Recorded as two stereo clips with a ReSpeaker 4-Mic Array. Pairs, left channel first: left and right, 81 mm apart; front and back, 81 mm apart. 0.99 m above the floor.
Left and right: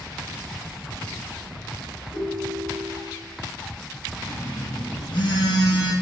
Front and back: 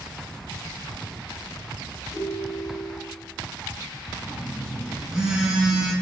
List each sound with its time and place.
2.1 s a ringtone: 60° left, 3 m
4.2 s a phone buzzing: 100° left, 2.5 m